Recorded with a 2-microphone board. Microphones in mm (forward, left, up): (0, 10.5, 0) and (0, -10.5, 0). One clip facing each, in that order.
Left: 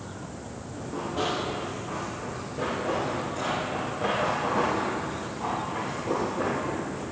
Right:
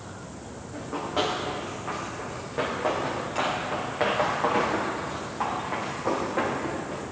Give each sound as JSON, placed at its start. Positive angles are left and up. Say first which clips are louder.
{"t": 0.7, "sound": "running footsteps", "louder": "right 3 dB", "side_deg": -35, "distance_m": 5.0}